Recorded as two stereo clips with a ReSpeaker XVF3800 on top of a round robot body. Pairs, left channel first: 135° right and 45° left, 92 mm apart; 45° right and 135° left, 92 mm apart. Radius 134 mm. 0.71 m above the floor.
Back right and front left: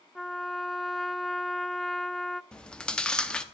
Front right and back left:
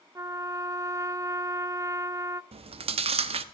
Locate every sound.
0.1 s a trumpet: 140° left, 0.5 m
2.5 s chewing: 145° left, 0.6 m